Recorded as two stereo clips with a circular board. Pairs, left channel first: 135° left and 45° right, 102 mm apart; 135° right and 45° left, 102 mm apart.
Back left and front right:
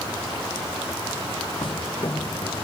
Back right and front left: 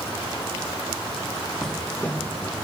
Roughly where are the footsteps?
Behind left.